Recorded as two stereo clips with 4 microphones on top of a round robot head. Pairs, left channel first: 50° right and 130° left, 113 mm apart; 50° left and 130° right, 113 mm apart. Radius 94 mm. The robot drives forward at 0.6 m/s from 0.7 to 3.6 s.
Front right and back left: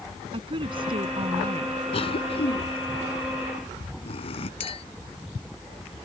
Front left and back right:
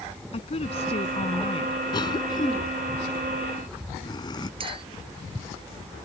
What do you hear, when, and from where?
0.3 s a woman speaking: 85° left
1.9 s a cough: 5° right
4.6 s a clink: 85° right